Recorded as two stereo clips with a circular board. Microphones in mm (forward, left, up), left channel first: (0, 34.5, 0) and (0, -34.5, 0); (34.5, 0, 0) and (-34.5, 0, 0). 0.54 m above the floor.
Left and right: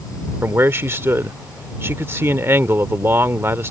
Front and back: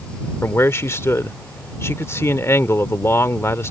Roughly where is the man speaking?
Ahead right.